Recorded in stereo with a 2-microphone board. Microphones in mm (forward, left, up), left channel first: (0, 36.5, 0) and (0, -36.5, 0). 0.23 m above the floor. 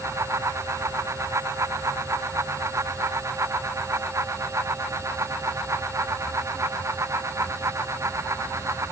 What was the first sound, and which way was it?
Only background noise.